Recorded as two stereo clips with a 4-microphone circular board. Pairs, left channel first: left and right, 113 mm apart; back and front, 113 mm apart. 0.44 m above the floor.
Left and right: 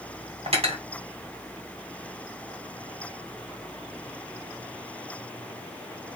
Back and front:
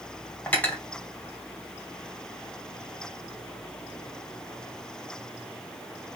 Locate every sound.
0.5 s cutlery clinking: 105° right, 1.5 m